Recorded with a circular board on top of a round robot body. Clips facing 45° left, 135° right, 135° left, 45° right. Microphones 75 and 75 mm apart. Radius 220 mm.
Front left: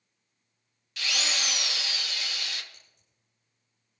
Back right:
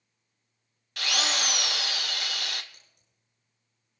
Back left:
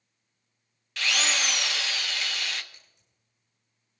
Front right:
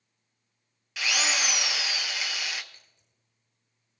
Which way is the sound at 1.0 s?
125° right.